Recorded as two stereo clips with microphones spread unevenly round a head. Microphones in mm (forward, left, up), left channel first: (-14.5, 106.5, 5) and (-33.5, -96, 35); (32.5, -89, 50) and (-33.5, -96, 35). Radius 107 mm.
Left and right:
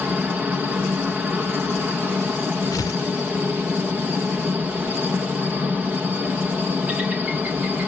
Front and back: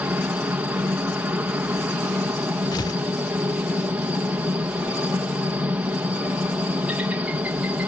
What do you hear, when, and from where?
0.0 s a helicopter: 175° left
2.7 s tearing paper: 10° left